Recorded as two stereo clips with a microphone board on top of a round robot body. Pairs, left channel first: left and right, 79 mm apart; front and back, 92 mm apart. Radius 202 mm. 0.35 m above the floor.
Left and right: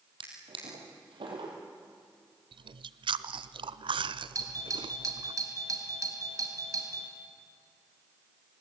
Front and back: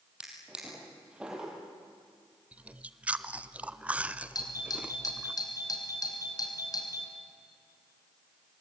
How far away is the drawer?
About 5.5 m.